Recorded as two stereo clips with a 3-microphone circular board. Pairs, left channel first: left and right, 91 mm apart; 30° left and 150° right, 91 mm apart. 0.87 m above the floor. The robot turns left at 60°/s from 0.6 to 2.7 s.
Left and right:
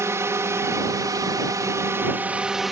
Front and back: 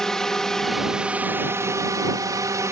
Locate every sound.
0.0 s a drone: 50° right; by 2.7 s straight behind